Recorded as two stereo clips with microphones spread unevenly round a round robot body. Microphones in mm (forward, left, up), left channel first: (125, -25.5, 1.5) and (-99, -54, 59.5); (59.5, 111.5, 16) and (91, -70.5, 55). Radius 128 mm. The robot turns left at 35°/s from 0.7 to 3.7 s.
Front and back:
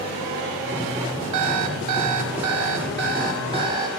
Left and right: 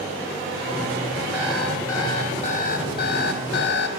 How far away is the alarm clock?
About 1.0 m.